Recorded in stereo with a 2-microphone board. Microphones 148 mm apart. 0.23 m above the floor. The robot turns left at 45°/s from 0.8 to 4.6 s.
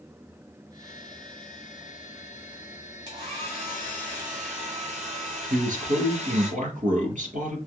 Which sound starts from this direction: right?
A man speaking, at 5.5 s.